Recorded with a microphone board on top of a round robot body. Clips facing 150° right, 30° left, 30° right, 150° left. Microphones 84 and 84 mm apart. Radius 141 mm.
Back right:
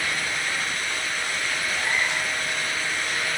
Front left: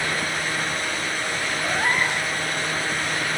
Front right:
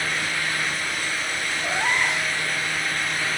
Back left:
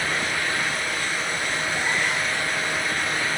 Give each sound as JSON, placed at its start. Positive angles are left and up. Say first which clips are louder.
{"t": 1.6, "sound": "a cat meowing", "louder": "front left 5 dB, front right 4 dB", "azimuth_deg": -15, "distance_m": 1.1}